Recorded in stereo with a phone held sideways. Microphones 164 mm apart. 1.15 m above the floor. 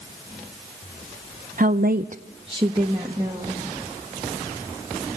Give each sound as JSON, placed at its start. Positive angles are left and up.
{"t": 1.6, "sound": "a woman speaking", "side_deg": -50, "distance_m": 0.7}